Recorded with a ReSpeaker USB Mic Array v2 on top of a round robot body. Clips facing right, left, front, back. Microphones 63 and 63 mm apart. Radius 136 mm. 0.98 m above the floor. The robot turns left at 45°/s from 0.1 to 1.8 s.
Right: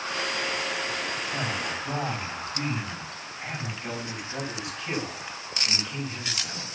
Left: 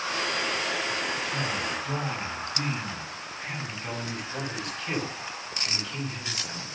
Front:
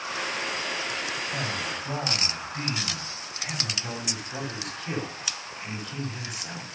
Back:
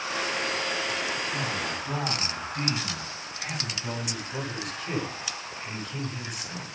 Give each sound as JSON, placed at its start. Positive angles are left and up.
{"t": 1.3, "sound": "a man speaking", "azimuth_deg": -30, "distance_m": 6.5}
{"t": 3.8, "sound": "a man speaking", "azimuth_deg": -15, "distance_m": 7.0}